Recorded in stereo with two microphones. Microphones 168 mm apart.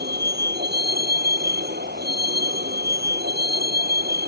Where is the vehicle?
75° right (ahead or behind).